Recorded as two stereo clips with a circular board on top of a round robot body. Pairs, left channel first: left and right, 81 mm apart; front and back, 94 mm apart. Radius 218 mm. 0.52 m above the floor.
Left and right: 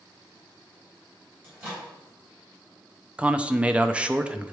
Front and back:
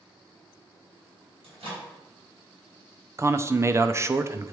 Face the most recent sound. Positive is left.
turn(degrees=-155)